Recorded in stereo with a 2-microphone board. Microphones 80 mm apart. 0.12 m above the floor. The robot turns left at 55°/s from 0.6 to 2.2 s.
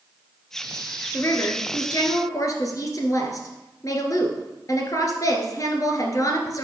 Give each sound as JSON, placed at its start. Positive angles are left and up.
{"t": 1.1, "sound": "a woman speaking", "azimuth_deg": 135, "distance_m": 1.9}